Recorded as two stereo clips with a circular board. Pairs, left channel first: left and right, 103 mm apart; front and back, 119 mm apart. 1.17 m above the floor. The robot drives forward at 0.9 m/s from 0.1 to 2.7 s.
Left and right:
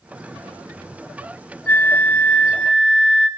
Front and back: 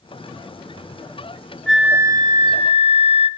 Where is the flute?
80° left, 0.6 m; by 3.3 s 165° left, 1.1 m.